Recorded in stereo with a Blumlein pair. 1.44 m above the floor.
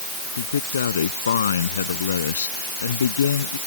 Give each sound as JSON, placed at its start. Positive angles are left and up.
{"t": 0.4, "sound": "a man speaking", "azimuth_deg": 70}